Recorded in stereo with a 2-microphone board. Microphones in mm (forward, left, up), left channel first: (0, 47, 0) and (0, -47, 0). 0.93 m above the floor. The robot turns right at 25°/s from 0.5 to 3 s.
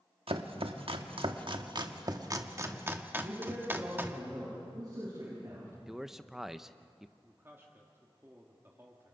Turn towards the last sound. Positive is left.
turn(degrees=-25)  # may be behind; listen again after turning